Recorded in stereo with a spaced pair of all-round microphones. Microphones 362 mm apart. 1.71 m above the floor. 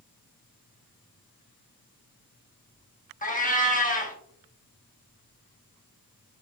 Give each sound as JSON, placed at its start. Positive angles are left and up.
{"t": 3.2, "sound": "a cat meowing", "side_deg": 20, "distance_m": 0.9}